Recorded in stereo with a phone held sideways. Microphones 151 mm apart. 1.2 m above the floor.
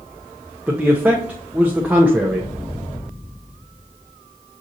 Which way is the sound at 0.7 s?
10° right (ahead or behind).